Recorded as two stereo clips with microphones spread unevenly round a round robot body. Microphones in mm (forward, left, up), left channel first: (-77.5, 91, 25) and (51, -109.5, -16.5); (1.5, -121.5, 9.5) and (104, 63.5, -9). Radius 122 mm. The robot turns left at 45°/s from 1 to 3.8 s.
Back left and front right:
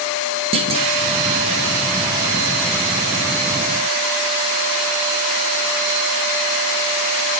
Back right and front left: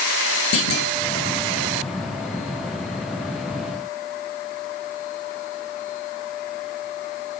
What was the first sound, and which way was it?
A clunk, 125° right.